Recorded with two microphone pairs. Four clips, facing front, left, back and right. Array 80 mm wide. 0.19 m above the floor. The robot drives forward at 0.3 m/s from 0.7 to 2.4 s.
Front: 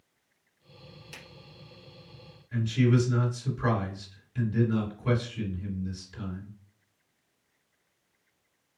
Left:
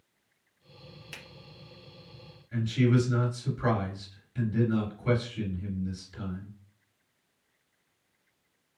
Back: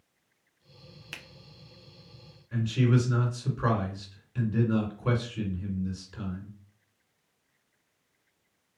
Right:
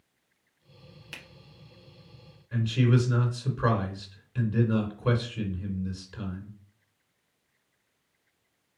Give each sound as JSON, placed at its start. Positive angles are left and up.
{"t": 1.1, "sound": "a finger snap", "azimuth_deg": -170, "distance_m": 1.4}
{"t": 2.5, "sound": "a man speaking", "azimuth_deg": -125, "distance_m": 2.5}